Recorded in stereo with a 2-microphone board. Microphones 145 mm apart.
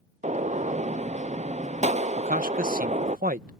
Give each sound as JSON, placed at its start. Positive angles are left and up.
{"t": 0.2, "sound": "a gunshot", "side_deg": -50}
{"t": 2.2, "sound": "a man speaking", "side_deg": -75}